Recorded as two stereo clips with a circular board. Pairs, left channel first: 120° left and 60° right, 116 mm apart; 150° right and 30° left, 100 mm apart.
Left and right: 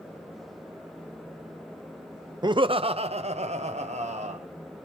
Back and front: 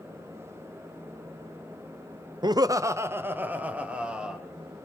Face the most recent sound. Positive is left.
turn(degrees=-50)